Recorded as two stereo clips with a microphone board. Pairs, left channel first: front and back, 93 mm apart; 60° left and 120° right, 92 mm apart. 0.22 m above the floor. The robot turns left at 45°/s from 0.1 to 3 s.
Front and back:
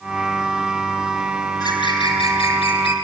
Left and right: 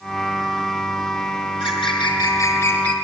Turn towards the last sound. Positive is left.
turn(degrees=-20)